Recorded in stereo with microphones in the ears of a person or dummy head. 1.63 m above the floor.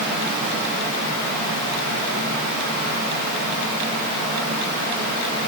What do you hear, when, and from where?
Only background noise.